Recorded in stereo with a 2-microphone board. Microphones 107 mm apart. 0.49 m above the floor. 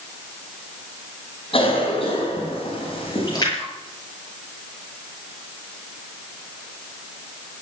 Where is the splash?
40° left (ahead or behind), 7 m.